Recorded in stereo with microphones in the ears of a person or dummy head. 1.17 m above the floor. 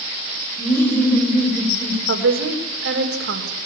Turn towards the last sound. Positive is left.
turn(degrees=-85)